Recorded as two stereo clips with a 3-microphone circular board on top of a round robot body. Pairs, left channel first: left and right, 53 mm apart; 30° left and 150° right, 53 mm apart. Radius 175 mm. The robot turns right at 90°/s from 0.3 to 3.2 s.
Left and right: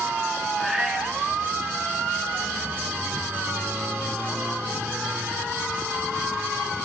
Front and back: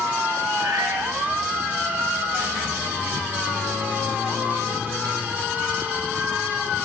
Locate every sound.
0.6 s a cat meowing: 175° left, 1.1 m; by 1.1 s 135° right, 1.1 m